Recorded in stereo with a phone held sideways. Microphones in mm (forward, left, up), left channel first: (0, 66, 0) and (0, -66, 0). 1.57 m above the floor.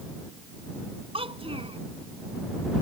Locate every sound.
1.1 s a child speaking: 50° right (ahead or behind)